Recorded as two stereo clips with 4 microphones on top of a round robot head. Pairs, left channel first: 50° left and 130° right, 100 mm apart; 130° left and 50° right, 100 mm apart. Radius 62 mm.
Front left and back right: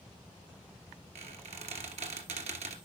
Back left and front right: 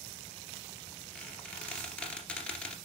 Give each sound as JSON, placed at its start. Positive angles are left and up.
{"t": 1.1, "sound": "a squeak", "azimuth_deg": -150, "distance_m": 2.0}